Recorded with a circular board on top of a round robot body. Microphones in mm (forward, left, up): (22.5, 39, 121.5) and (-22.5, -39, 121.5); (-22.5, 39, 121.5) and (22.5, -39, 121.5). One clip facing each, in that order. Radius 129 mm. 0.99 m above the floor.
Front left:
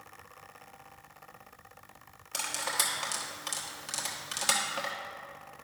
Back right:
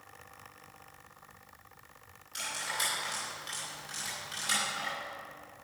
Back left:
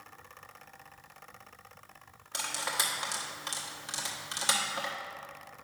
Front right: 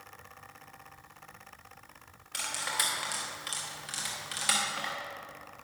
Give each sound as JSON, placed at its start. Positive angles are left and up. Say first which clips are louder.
{"t": 2.3, "sound": "cutlery clinking", "louder": "front left 3 dB, back left 1 dB", "azimuth_deg": 55, "distance_m": 1.2}